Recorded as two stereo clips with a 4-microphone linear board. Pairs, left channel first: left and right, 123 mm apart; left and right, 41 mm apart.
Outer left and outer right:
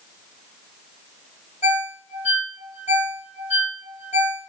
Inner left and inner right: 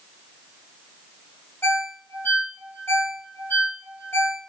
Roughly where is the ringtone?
Left.